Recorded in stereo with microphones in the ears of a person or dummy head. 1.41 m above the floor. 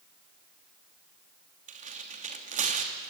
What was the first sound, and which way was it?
Tearing paper, 45° right (ahead or behind).